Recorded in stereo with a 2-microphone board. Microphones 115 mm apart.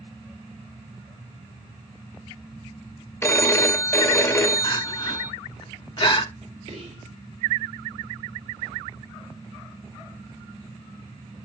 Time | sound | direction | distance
3.2 | a phone ringing | 20° left (ahead or behind) | 0.5 m
4.6 | crying | 40° left (ahead or behind) | 0.7 m
6.7 | whispering | 55° right (ahead or behind) | 3.5 m